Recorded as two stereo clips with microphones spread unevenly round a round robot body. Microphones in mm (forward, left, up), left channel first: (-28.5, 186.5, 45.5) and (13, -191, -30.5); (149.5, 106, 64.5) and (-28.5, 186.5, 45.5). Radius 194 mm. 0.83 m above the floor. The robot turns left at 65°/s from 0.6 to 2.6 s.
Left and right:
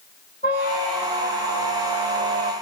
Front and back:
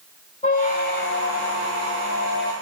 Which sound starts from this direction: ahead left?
A squeak, at 0.4 s.